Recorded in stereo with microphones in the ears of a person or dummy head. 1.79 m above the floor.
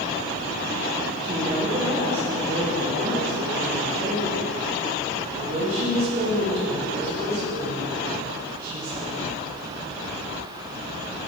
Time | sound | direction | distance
1.2 | a woman speaking | 25° right (ahead or behind) | 1.5 m